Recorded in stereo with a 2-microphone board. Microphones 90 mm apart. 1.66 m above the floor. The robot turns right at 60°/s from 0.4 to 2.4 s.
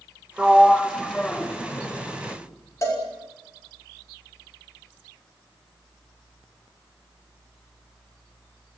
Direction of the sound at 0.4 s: 10° right (ahead or behind).